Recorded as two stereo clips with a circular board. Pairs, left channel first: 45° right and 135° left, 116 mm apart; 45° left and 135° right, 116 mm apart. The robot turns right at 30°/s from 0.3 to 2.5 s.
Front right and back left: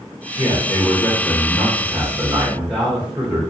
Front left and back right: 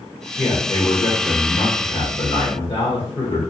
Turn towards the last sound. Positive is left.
turn(degrees=55)